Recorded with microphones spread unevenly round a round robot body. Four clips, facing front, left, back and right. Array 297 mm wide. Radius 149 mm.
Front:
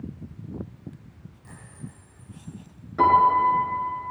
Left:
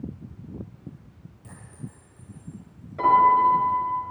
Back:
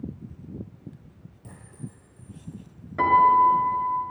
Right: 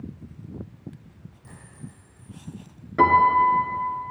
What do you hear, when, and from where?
1.4 s a clink: 165° left, 7.5 m
3.0 s a piano: 95° right, 4 m